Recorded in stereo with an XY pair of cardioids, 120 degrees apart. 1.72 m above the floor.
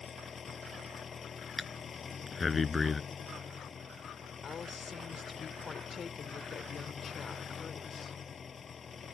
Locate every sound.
0.0 s an engine running: 30° left
1.6 s breathing: 25° left
4.4 s a woman speaking: 35° left